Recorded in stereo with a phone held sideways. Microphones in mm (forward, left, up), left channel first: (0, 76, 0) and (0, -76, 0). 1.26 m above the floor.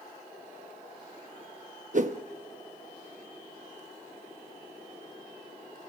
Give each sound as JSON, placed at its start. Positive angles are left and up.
{"t": 1.9, "sound": "a whoosh", "side_deg": -55, "distance_m": 0.9}